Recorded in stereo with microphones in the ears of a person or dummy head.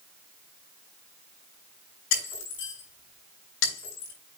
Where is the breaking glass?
75° left (ahead or behind), 5.5 m.